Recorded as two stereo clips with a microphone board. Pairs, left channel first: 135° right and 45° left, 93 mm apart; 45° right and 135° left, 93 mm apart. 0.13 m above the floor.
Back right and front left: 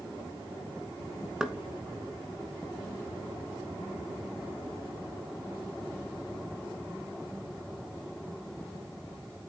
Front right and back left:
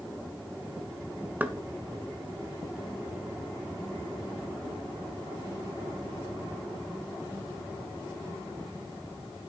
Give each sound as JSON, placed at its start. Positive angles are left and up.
{"t": 1.4, "sound": "knocking", "azimuth_deg": 110, "distance_m": 0.7}